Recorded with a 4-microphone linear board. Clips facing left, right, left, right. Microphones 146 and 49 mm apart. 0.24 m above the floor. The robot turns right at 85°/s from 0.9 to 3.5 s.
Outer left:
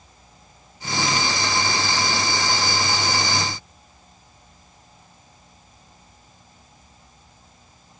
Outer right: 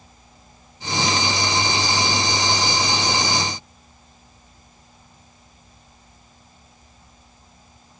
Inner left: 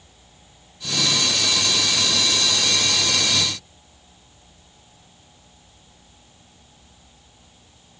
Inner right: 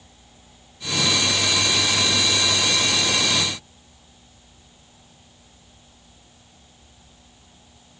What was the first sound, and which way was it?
Only background noise.